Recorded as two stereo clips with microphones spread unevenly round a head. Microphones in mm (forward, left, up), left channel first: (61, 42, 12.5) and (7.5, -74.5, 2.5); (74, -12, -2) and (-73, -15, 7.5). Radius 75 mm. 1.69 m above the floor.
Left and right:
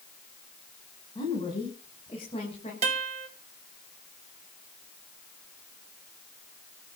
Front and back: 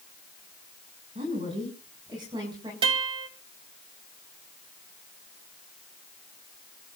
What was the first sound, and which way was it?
A woman speaking, 125° left.